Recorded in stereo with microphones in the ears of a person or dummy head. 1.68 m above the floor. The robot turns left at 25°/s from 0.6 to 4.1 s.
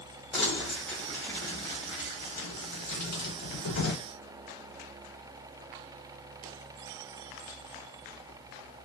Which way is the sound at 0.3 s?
Centre (ahead or behind).